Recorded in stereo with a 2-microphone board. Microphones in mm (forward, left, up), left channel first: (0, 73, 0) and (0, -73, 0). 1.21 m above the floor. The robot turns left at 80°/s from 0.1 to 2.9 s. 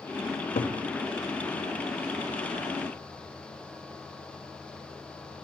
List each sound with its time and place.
0.3 s a cupboard door: 65° left (ahead or behind), 1.1 m